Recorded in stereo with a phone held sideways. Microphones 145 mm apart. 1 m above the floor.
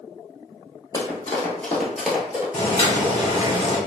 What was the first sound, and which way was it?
Running footsteps, 30° left (ahead or behind).